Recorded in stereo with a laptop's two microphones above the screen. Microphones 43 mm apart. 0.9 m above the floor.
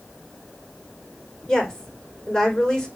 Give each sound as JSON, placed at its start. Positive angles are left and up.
{"t": 1.5, "sound": "a woman speaking", "side_deg": 20, "distance_m": 4.0}